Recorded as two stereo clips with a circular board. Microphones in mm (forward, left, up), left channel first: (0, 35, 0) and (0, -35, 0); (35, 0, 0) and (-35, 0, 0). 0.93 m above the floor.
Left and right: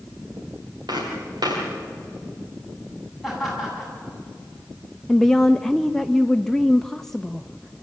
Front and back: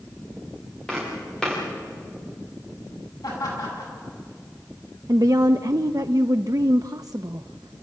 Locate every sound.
0.9 s footsteps: 80° right, 8 m
3.2 s laughter: straight ahead, 8.5 m
5.1 s a woman speaking: 175° left, 0.5 m